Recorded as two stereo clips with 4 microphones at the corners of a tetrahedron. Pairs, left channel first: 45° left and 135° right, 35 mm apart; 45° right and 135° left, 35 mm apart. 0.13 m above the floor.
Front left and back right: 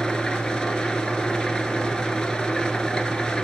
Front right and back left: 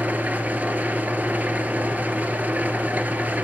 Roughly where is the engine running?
Left.